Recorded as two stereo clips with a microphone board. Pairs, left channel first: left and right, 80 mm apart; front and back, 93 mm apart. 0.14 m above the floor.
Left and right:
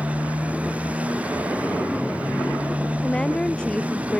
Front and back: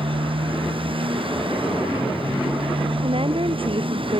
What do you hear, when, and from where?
0.0 s a motorcycle: 165° right
3.0 s a woman speaking: 170° left